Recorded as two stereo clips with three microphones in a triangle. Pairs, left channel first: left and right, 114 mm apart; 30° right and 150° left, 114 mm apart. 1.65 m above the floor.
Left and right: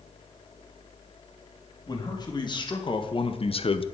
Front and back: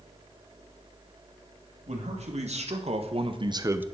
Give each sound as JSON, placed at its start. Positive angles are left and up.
{"t": 1.9, "sound": "a man speaking", "azimuth_deg": 140, "distance_m": 2.5}